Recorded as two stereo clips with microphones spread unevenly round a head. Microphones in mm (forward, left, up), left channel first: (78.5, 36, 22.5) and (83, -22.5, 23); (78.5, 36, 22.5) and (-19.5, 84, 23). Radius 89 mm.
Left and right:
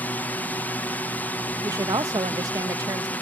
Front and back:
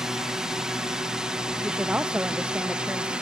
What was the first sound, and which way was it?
A drone, 75° left.